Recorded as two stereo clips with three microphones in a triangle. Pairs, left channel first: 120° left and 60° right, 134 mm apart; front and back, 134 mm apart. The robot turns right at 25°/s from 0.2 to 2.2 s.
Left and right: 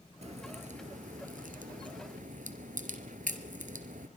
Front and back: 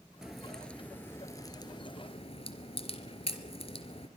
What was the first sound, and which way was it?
A crack, 95° right.